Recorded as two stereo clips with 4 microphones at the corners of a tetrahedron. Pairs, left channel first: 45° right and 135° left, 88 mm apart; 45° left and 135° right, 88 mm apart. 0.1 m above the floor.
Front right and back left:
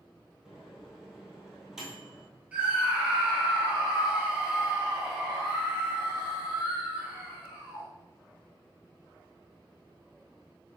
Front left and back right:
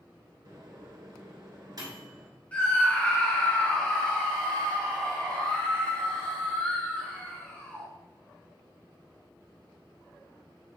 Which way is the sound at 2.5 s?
85° left.